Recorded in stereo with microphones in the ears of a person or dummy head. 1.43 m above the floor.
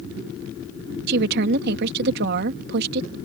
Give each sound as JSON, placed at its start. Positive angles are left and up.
{"t": 1.1, "sound": "a woman speaking", "side_deg": -65}